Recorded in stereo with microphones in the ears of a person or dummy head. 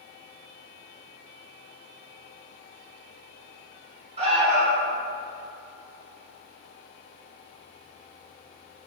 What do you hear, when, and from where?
4.2 s an alarm: 40° right (ahead or behind), 1.7 m